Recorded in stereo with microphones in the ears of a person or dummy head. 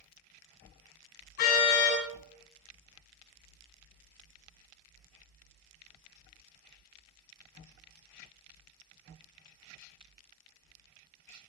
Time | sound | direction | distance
1.4 | a car horn | 65° left (ahead or behind) | 7 m